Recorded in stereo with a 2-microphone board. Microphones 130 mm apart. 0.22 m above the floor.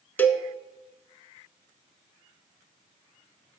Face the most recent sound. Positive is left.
turn(degrees=15)  # may be behind; listen again after turning